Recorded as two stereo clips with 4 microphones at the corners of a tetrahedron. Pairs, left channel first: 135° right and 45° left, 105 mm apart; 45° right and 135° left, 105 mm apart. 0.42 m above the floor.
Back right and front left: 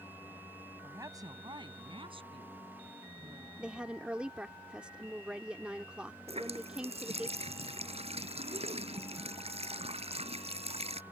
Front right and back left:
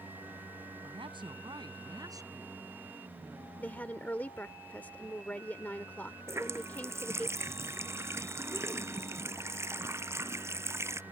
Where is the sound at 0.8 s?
110° left; by 3.5 s 65° left.